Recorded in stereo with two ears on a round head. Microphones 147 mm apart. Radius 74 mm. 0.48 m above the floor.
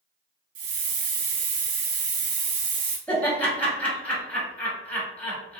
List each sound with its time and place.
0.6 s a hiss: 55° right (ahead or behind), 0.9 m
3.1 s laughter: 10° left (ahead or behind), 1.0 m